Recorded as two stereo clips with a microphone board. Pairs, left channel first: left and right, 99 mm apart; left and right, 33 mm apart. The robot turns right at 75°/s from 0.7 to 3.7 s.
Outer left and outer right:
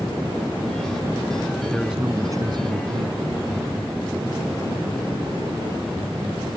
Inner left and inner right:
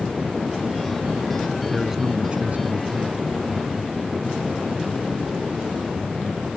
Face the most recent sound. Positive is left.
turn(degrees=-40)